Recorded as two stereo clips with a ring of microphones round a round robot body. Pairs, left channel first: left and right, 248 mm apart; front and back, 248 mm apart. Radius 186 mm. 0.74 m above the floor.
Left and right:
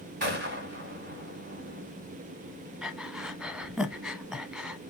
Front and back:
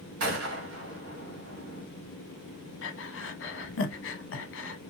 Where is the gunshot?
155° right, 3 m.